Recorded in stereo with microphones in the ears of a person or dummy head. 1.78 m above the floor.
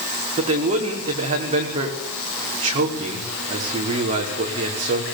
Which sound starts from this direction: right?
A man speaking, at 0.4 s.